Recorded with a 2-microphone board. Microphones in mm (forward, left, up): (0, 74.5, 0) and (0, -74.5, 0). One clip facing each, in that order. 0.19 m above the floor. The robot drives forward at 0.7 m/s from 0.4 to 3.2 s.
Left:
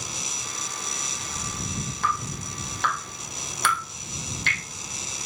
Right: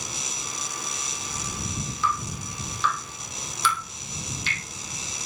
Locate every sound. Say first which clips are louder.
2.0 s dripping: right 1 dB; 55° left (ahead or behind), 8.5 m; by 4.6 s 60° left (ahead or behind), 8 m